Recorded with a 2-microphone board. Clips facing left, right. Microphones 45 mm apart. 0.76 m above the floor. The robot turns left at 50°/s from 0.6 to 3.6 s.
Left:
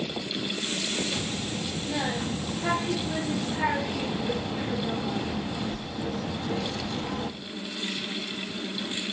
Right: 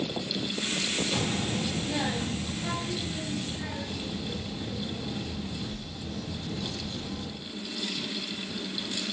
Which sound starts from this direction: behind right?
A child speaking, at 1.1 s.